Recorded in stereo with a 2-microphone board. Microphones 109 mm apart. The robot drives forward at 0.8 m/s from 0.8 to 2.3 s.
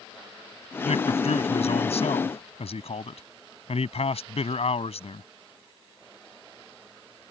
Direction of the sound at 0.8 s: 80° left.